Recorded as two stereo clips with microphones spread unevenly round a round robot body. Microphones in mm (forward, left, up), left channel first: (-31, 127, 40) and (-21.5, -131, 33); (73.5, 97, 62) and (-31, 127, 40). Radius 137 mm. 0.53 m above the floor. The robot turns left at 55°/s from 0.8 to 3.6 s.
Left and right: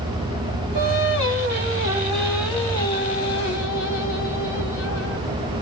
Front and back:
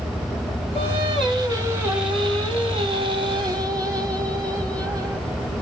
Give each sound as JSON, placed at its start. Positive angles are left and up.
{"t": 0.8, "sound": "singing", "azimuth_deg": -85, "distance_m": 2.0}